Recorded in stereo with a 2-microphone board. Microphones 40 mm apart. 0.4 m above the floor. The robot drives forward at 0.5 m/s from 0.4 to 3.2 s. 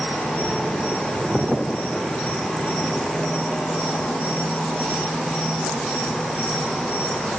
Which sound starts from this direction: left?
An insect, at 0.0 s.